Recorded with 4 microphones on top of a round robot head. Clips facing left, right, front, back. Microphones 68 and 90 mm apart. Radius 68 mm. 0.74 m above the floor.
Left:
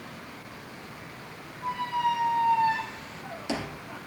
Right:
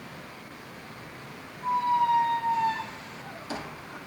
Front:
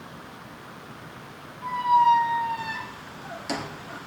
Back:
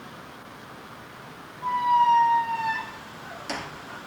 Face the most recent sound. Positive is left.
turn(degrees=80)